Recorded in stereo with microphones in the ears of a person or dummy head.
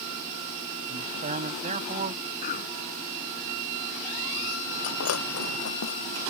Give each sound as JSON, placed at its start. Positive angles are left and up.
{"t": 0.9, "sound": "a man speaking", "side_deg": -35}
{"t": 2.4, "sound": "a cough", "side_deg": 45}
{"t": 4.8, "sound": "breaking glass", "side_deg": 80}